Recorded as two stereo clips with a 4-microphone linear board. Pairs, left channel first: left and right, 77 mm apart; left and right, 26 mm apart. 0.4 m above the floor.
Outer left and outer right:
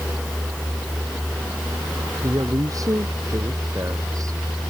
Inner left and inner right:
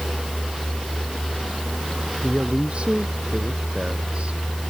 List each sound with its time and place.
2.2 s a woman speaking: 45° right (ahead or behind)